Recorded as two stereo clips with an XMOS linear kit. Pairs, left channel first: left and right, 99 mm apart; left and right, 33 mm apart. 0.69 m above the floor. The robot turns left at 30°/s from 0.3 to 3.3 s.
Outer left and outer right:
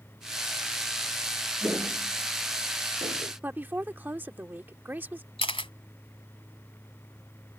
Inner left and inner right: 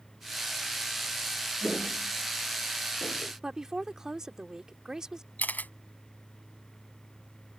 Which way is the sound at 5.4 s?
65° left (ahead or behind).